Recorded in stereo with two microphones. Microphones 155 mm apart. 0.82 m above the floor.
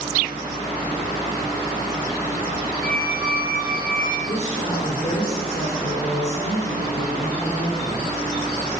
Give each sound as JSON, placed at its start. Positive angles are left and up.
{"t": 2.8, "sound": "a squeak", "side_deg": -65, "distance_m": 0.6}
{"t": 4.3, "sound": "a woman speaking", "side_deg": 50, "distance_m": 2.5}